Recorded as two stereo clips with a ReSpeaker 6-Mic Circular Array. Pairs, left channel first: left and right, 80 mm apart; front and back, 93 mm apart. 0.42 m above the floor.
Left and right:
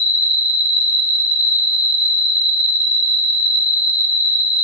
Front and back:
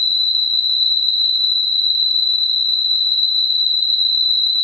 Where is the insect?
175° right, 1.4 m.